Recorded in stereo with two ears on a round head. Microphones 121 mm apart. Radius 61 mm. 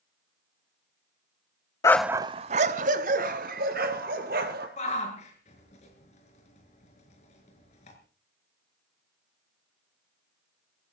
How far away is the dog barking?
About 0.6 m.